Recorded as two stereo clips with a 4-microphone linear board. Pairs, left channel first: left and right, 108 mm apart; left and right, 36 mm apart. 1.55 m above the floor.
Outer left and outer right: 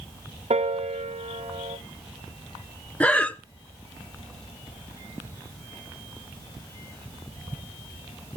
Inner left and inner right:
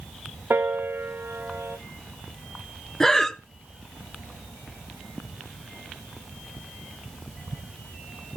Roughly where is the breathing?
Centre.